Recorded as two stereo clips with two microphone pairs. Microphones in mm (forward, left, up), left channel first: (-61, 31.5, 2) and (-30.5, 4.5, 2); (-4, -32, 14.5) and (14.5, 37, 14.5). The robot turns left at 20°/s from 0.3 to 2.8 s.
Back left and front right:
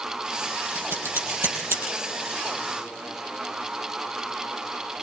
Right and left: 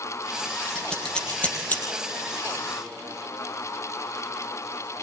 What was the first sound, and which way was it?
Scissors, 20° right.